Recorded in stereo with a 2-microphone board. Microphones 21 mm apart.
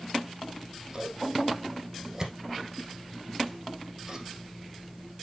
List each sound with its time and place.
0.4 s scissors: 20° right (ahead or behind), 1.9 m